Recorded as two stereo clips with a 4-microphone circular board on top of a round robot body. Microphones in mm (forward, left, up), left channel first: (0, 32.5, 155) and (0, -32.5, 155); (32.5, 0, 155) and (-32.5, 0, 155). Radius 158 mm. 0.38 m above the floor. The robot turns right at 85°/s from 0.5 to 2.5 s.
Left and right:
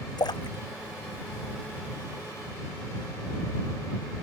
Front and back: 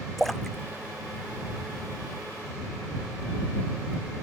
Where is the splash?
85° left; by 1.9 s 150° right.